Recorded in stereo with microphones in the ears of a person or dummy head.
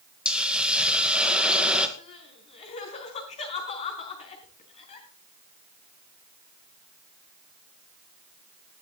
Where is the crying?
40° left (ahead or behind), 4 m.